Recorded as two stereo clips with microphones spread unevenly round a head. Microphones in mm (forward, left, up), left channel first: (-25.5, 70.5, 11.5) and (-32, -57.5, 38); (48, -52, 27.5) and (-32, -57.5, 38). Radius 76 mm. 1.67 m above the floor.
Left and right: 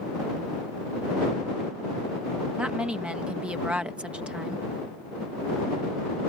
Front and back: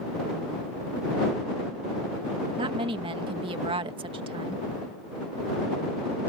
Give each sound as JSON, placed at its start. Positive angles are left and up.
{"t": 2.6, "sound": "a woman speaking", "azimuth_deg": -175}